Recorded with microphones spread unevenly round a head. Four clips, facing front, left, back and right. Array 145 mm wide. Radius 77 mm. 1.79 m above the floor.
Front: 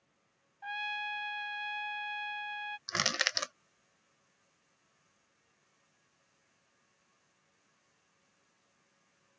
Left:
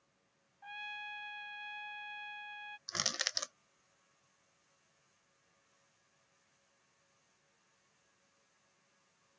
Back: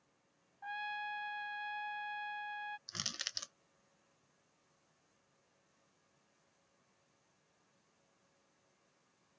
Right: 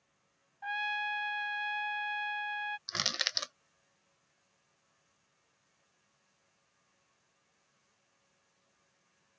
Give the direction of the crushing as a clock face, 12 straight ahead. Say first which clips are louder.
Right 3 dB, front 15 dB; 12 o'clock.